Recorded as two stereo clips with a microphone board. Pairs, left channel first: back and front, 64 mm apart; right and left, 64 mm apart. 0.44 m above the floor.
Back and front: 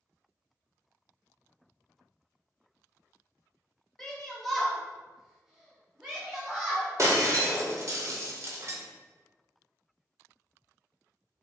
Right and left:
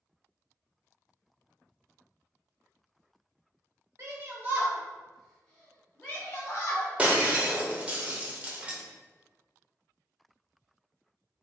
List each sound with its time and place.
4.0 s a shout: 100° left, 1.1 m; by 6.9 s 70° right, 1.4 m
7.0 s breaking glass: 25° left, 0.5 m